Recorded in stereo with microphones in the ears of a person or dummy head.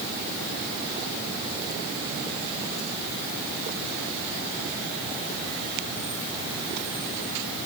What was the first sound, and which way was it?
Only background noise.